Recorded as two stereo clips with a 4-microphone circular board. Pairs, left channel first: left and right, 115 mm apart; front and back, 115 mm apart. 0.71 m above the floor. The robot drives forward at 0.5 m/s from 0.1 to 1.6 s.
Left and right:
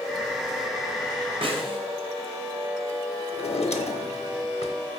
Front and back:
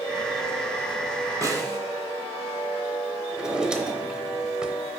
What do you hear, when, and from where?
1.4 s a snare drum: 120° right, 1.0 m; by 1.8 s 125° right, 1.0 m
3.3 s a drawer: 95° left, 0.8 m